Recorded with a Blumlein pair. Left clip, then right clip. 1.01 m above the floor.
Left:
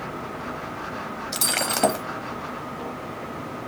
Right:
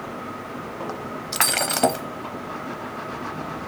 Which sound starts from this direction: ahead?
Breaking glass, at 1.3 s.